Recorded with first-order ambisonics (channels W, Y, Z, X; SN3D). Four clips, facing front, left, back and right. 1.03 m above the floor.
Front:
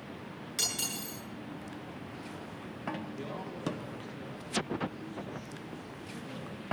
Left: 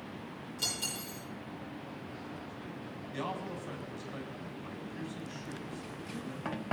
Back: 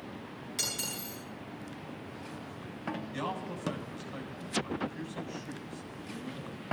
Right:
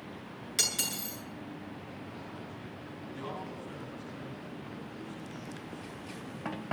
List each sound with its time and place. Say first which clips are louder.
0.6 s cutlery clinking: right 5 dB, front 2 dB; 80° right, 9.5 m
3.1 s a man speaking: left 3 dB, back 4 dB; 140° left, 7.5 m